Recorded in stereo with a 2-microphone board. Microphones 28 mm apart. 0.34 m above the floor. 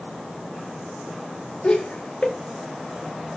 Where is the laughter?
40° left (ahead or behind), 1.2 m.